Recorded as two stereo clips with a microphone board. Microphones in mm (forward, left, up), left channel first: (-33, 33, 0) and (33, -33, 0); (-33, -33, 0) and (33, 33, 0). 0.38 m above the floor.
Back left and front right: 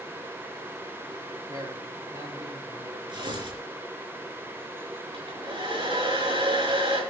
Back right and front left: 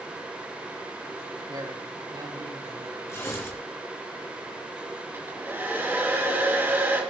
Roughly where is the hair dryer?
Ahead.